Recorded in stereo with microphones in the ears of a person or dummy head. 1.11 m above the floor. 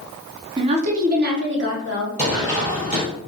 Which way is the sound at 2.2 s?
5° right (ahead or behind).